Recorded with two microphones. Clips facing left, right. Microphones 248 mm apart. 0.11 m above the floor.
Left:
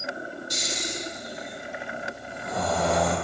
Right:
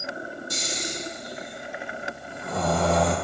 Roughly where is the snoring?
Right.